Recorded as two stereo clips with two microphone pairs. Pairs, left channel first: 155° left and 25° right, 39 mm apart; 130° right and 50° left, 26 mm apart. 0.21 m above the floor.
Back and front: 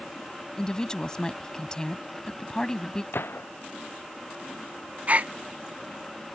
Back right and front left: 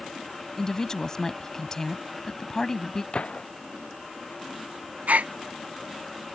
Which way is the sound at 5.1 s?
30° left.